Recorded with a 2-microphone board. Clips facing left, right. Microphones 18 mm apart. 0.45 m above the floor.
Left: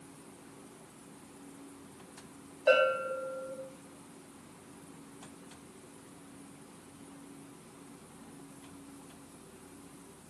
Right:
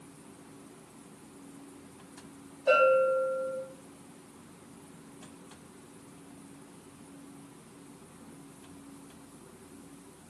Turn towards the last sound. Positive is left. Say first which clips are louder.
# right 4 dB
turn(degrees=35)  # may be behind; listen again after turning